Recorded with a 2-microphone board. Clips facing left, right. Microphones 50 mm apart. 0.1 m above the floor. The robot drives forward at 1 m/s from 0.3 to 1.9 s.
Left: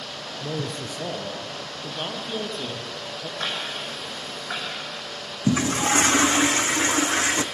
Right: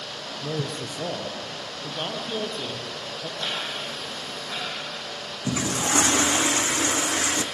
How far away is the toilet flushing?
About 1.1 m.